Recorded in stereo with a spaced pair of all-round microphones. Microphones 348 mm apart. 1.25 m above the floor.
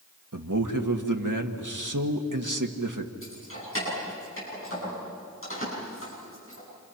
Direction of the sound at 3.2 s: 40° left (ahead or behind).